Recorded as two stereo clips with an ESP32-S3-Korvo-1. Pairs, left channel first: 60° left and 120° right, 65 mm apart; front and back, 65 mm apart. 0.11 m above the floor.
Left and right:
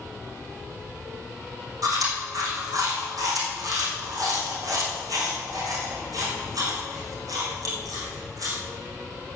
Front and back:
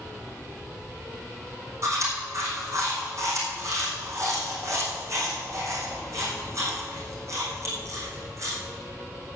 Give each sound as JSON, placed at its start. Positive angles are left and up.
{"t": 1.8, "sound": "chewing", "azimuth_deg": -145, "distance_m": 5.5}